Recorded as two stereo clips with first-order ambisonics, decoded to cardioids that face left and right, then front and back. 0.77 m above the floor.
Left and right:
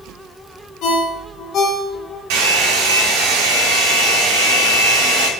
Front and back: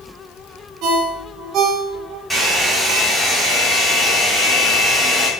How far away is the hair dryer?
About 2.5 m.